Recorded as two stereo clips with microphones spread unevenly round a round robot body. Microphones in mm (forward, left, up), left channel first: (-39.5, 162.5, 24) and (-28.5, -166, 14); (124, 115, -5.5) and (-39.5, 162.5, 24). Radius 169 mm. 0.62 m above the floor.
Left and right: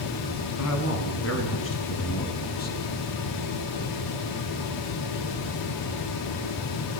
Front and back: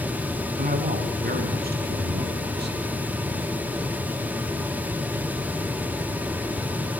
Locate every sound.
0.6 s a man speaking: 130° left, 4.5 m; by 2.9 s 155° left, 3.5 m